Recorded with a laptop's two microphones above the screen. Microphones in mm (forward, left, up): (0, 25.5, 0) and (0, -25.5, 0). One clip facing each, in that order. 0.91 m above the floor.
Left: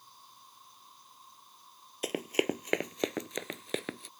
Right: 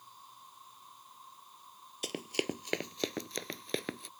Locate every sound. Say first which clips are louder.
0.0 s an insect: right 2 dB; 10° right (ahead or behind)
2.0 s running footsteps: left 5 dB; 30° left (ahead or behind); by 4.1 s centre (ahead or behind)